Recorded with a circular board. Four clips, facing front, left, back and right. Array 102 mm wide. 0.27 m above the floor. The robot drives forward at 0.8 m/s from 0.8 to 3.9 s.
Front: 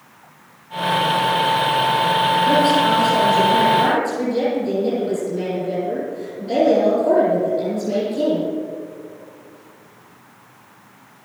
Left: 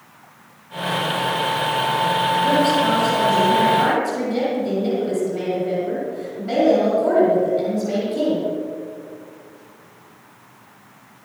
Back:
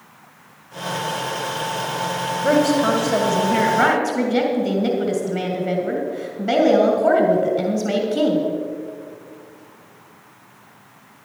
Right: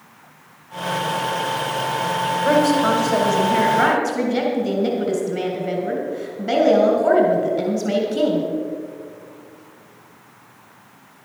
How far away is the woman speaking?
About 1.8 m.